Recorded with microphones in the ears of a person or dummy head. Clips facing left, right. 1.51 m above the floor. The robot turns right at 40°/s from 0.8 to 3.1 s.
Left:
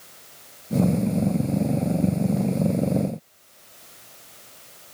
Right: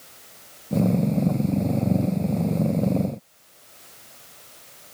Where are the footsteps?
I don't hear footsteps.